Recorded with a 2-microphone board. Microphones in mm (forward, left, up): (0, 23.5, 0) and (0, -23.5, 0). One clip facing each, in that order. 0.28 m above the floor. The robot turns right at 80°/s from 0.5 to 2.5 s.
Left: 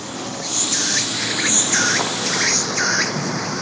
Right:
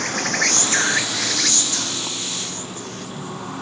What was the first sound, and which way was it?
An insect, 55° right.